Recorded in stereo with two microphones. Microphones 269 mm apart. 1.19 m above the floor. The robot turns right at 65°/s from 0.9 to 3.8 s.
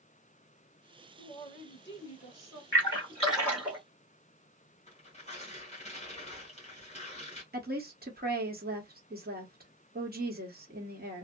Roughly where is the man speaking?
Ahead.